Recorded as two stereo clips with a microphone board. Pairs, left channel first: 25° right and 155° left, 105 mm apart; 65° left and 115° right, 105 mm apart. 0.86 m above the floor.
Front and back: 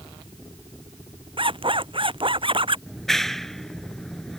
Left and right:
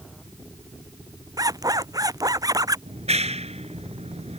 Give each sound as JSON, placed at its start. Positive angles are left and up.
{"t": 1.4, "sound": "a zipper", "azimuth_deg": -165}
{"t": 2.9, "sound": "a clap", "azimuth_deg": -110}